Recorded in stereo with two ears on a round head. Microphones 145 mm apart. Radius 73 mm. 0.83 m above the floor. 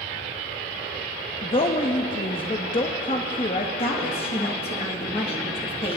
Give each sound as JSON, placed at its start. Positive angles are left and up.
{"t": 1.4, "sound": "a woman speaking", "side_deg": 30, "distance_m": 0.8}
{"t": 3.8, "sound": "a woman speaking", "side_deg": 35, "distance_m": 1.2}